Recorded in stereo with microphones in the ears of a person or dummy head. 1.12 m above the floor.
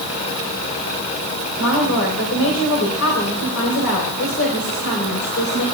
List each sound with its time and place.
1.6 s a woman speaking: 80° left, 3 m